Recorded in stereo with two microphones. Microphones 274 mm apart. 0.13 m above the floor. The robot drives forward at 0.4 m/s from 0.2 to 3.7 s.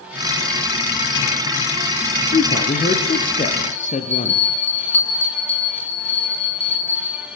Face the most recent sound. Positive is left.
turn(degrees=5)  # may be behind; listen again after turning